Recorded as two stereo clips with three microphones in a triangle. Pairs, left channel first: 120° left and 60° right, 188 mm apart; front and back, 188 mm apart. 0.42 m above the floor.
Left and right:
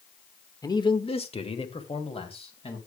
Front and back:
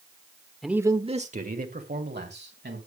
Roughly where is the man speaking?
Left.